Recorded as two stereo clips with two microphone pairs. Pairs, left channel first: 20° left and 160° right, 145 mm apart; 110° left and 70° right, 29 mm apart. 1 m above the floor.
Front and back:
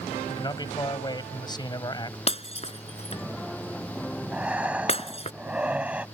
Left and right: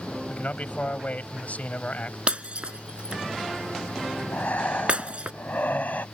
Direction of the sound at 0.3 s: 80° left.